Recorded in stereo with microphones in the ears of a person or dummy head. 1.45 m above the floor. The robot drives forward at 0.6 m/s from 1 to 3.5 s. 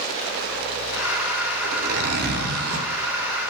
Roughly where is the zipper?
Right.